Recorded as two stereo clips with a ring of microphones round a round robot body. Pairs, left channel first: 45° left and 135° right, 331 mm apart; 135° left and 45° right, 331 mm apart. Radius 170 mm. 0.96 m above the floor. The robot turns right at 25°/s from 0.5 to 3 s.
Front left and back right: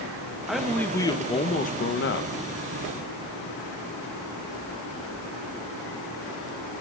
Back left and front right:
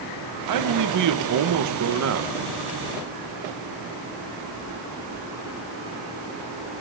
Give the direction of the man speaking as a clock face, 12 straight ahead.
2 o'clock.